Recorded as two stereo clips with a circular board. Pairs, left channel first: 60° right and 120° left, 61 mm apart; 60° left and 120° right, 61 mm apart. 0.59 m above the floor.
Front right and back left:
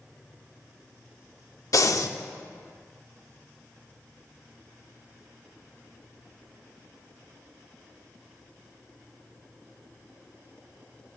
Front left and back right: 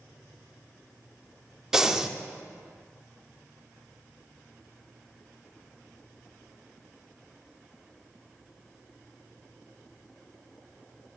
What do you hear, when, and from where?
1.7 s breathing: 40° right, 0.5 m